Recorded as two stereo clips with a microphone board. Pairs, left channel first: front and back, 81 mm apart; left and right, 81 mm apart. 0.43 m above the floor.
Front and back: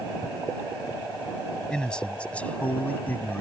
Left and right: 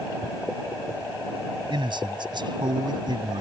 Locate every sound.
1.7 s a man speaking: 80° right; by 3.4 s 65° right